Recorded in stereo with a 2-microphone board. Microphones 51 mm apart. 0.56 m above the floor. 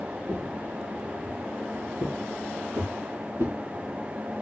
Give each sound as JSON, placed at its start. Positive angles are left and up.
{"t": 0.3, "sound": "footsteps", "side_deg": -75, "distance_m": 2.5}